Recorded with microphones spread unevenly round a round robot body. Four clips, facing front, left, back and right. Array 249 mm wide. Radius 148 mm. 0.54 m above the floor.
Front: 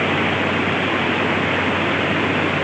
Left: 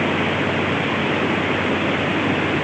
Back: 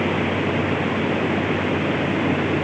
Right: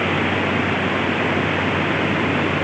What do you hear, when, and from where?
Only background noise.